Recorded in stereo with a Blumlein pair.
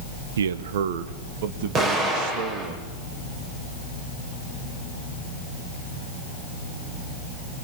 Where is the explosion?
30° right, 9 m.